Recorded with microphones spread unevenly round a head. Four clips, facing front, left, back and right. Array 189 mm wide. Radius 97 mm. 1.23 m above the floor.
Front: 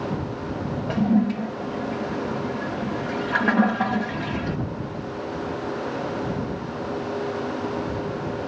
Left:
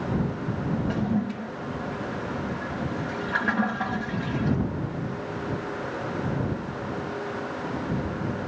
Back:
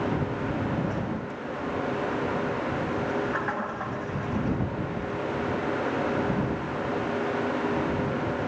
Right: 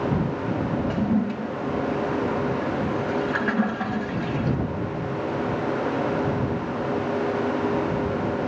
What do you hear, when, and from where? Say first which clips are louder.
0.9 s a toilet flushing: right 3 dB, front 10 dB; 15° right